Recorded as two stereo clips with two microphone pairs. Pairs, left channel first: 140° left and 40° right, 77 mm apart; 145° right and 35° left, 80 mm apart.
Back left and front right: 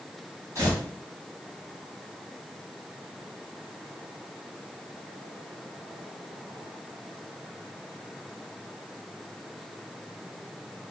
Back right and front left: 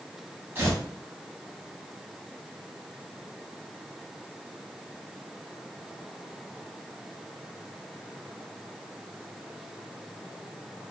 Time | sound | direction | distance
0.6 | tearing paper | 15° right | 1.4 m